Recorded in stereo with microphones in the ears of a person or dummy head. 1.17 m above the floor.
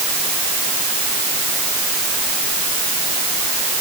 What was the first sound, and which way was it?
Only background noise.